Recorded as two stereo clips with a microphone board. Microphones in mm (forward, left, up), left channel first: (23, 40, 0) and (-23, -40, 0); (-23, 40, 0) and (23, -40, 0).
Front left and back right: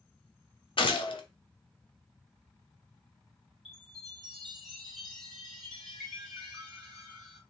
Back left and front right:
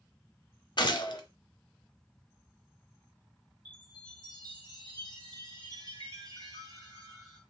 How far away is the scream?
No scream in this recording.